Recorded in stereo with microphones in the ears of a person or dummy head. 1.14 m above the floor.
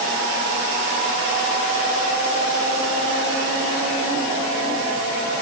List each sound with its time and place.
Only background noise.